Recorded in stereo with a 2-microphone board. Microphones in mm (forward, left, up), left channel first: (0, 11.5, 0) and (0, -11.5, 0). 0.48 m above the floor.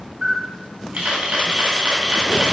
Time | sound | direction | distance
0.2 | a camera shutter | 80° right | 3.5 m